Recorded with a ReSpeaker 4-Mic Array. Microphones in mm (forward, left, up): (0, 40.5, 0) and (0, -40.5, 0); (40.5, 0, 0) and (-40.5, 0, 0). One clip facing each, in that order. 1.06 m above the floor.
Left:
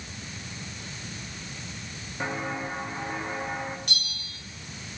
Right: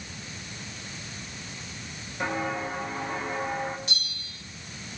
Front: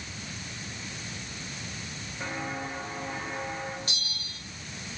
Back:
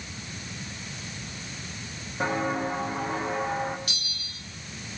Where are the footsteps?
165° left, 6.5 m; by 3.8 s 170° left, 5.5 m.